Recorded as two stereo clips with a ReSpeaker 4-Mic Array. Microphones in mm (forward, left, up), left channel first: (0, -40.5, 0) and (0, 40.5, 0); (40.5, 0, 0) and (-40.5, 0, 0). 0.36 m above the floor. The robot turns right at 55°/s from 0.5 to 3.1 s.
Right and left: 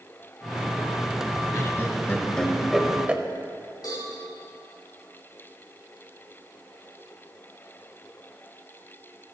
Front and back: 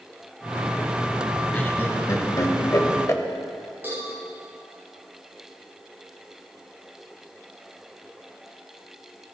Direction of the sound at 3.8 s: 115° right.